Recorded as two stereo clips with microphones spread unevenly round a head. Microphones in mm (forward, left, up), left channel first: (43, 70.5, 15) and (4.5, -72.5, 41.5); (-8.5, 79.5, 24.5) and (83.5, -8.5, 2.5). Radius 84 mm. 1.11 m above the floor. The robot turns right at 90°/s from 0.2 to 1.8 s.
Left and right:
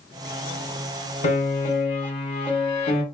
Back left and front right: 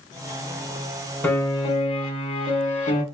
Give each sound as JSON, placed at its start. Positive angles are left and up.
{"t": 1.2, "sound": "a piano", "azimuth_deg": 55, "distance_m": 1.0}